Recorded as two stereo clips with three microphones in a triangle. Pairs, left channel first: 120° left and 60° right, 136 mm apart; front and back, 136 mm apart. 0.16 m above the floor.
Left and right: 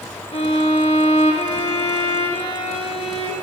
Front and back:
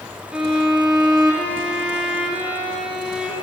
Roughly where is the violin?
Left.